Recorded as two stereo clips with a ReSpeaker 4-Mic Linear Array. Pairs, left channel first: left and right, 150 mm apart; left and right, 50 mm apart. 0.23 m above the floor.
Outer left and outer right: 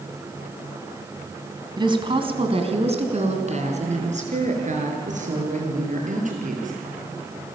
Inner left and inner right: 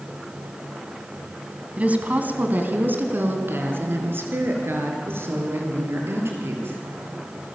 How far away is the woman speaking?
About 2 m.